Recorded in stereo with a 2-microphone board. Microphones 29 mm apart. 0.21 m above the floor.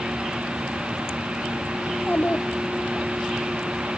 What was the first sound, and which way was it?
A child speaking, 80° left.